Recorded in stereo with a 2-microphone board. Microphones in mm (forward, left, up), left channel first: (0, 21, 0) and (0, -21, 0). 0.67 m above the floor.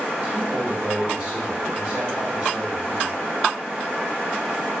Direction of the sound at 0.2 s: 20° right (ahead or behind).